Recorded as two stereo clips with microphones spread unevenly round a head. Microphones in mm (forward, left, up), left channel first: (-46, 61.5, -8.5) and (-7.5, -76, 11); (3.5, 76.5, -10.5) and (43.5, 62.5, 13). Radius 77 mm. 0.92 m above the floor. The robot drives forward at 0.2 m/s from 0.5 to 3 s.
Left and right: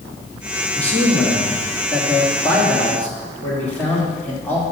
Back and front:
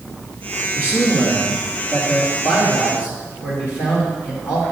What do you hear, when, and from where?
0.8 s a man speaking: 175° right, 1.6 m